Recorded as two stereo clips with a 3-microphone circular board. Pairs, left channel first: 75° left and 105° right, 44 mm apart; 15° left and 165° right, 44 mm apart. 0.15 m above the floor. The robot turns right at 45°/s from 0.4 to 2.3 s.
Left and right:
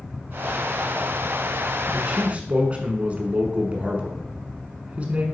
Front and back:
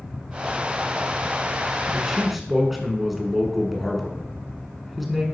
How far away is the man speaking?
About 1.2 m.